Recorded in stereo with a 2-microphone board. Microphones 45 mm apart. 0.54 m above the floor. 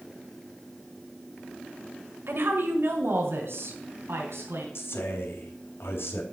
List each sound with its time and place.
2.3 s a woman speaking: 65° right (ahead or behind), 1.7 m; by 4.7 s 75° right (ahead or behind), 3.5 m
4.8 s a man speaking: 70° left (ahead or behind), 3.5 m